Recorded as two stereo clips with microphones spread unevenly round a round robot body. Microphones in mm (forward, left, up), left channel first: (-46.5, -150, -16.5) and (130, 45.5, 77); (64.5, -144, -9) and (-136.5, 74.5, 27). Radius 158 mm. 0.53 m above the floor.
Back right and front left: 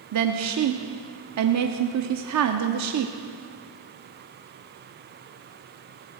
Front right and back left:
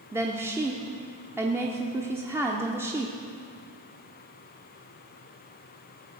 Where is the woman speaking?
45° left, 0.8 m.